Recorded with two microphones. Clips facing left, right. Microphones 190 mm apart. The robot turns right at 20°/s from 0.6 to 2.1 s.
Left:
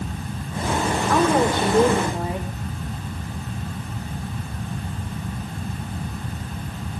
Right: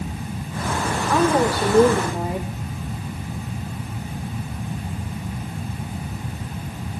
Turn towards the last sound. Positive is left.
turn(degrees=-20)  # may be behind; listen again after turning